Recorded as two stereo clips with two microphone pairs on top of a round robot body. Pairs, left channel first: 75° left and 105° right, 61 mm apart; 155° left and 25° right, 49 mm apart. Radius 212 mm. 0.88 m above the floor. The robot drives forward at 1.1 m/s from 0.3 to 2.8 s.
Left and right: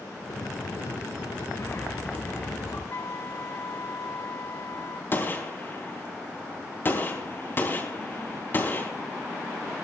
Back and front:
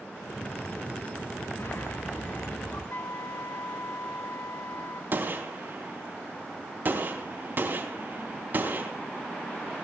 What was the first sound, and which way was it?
A bird, 120° left.